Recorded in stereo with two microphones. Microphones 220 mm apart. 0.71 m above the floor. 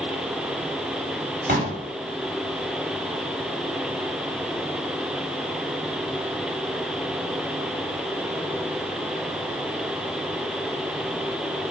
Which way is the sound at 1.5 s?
45° right (ahead or behind).